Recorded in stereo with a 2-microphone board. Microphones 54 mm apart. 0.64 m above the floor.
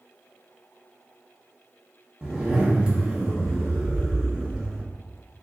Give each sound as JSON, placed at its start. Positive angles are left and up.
{"t": 2.2, "sound": "a zipper", "side_deg": -15, "distance_m": 1.2}